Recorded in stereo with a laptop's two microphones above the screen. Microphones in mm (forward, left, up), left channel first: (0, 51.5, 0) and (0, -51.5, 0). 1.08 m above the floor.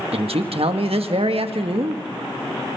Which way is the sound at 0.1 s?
70° right (ahead or behind).